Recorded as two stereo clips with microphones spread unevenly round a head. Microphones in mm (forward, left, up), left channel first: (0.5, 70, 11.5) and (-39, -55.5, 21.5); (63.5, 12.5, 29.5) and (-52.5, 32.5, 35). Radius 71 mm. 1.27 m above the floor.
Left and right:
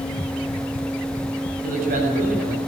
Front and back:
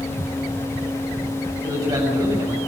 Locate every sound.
1.6 s a man speaking: 125° right, 6 m